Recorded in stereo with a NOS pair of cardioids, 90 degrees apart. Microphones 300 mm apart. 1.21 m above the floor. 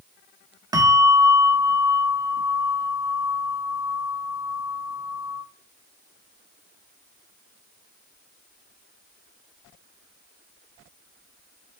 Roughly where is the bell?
Ahead.